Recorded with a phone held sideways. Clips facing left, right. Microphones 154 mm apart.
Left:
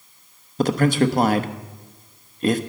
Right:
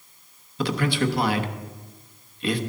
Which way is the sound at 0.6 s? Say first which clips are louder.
Left 6 dB; 45° left (ahead or behind).